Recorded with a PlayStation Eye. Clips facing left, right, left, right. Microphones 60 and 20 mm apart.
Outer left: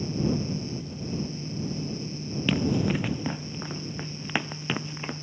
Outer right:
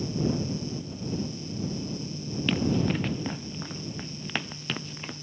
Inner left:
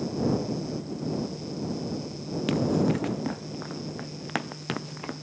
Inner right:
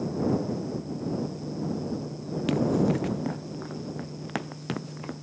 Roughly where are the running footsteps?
Centre.